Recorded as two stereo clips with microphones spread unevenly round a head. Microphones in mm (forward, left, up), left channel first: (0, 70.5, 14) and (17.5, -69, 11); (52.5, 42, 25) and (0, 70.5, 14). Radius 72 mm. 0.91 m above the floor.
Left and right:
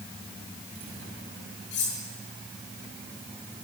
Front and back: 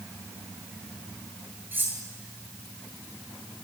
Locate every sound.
1.7 s cutlery clinking: 100° left, 9 m